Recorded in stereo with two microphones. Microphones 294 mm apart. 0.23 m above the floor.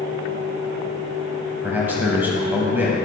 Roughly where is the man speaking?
Centre.